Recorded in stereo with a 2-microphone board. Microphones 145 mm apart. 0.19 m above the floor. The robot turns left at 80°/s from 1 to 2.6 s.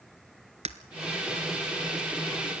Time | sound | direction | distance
0.7 | breaking glass | 50° right (ahead or behind) | 1.0 m